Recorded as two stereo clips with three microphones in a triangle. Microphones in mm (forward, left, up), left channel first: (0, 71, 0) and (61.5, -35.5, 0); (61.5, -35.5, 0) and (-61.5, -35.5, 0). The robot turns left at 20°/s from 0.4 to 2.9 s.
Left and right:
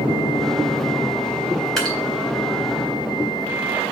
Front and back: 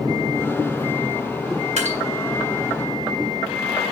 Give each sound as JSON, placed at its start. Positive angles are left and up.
{"t": 1.8, "sound": "dripping", "azimuth_deg": -155, "distance_m": 4.0}